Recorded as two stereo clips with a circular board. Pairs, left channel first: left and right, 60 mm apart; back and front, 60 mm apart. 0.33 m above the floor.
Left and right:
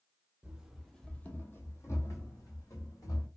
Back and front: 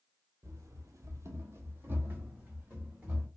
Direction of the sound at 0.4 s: 25° right.